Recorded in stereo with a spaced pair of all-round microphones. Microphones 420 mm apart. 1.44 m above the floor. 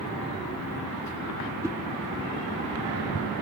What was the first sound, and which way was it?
A whoosh, 5° right (ahead or behind).